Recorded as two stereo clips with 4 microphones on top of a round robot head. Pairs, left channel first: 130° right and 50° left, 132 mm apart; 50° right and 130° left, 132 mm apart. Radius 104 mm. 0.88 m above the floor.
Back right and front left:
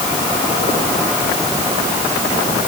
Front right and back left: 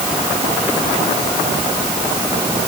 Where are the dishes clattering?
No dishes clattering in this recording.